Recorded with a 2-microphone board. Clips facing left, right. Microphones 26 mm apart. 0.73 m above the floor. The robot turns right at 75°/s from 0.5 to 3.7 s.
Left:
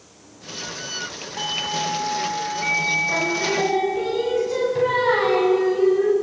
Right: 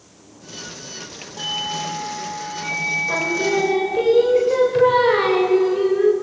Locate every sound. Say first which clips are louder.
1.4 s a doorbell: even; 35° left, 7.5 m; by 4.1 s 150° right, 7.5 m
3.1 s singing: right 2 dB; 140° right, 2.5 m; by 6.1 s 95° right, 2.5 m